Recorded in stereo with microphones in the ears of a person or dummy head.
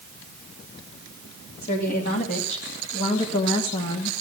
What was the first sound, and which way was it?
A woman speaking, 50° left (ahead or behind).